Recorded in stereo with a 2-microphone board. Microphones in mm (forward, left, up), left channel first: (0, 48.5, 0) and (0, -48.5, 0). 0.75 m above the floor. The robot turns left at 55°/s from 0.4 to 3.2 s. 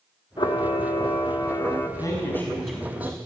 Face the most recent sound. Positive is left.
turn(degrees=-25)